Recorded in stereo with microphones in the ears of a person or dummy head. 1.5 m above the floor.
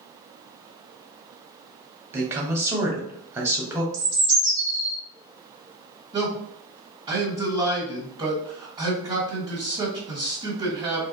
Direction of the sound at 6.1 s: 30° right (ahead or behind).